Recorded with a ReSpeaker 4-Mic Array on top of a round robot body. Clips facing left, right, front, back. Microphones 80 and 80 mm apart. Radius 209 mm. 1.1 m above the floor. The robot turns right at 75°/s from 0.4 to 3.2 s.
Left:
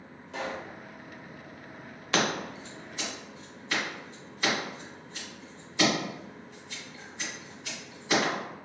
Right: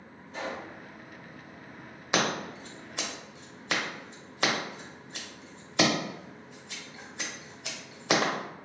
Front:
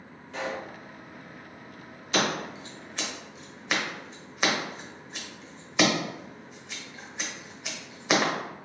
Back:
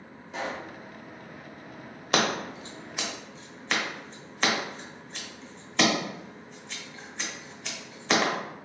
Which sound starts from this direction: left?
A pop, at 0.3 s.